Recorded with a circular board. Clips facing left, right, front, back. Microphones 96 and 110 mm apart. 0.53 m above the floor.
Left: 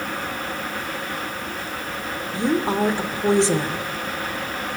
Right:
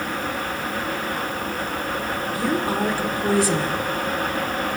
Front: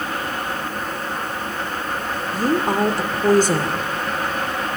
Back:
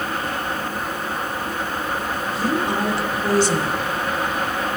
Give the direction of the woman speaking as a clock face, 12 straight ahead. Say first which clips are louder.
Left 3 dB, front 4 dB; 11 o'clock.